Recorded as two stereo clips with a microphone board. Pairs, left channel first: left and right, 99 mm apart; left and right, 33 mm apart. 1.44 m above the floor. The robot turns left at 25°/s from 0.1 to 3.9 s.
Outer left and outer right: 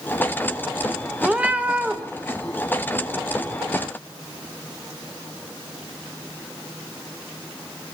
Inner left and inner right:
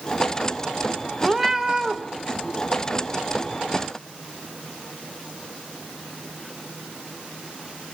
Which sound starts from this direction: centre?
A cat meowing, at 1.2 s.